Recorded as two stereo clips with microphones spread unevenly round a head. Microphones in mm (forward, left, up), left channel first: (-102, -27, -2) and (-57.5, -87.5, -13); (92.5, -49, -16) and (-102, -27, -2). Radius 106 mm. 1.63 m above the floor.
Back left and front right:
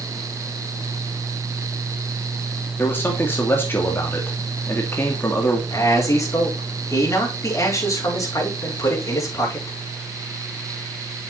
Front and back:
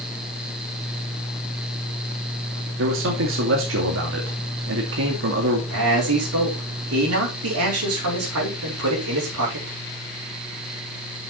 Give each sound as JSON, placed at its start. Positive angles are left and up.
{"t": 2.8, "sound": "a man speaking", "azimuth_deg": -175, "distance_m": 2.5}
{"t": 5.7, "sound": "a man speaking", "azimuth_deg": 175, "distance_m": 5.0}